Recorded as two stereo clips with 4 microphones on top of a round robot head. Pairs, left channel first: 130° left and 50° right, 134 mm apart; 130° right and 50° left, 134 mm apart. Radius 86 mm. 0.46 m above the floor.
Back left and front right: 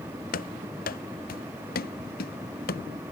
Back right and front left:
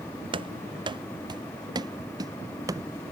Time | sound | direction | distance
0.3 | running footsteps | 105° left | ?